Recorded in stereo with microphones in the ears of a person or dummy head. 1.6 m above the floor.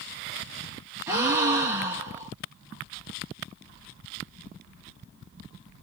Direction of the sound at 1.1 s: 15° right (ahead or behind).